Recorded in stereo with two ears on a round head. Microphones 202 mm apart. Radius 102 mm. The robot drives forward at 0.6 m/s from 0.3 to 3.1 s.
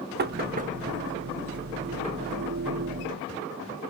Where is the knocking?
45° right (ahead or behind), 0.6 m; by 0.7 s 35° right (ahead or behind), 0.8 m.